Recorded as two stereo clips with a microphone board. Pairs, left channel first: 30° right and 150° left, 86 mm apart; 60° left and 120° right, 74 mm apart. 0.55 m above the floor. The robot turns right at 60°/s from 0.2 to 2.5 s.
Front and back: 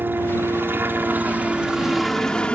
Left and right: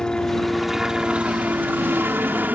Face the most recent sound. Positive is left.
turn(degrees=-95)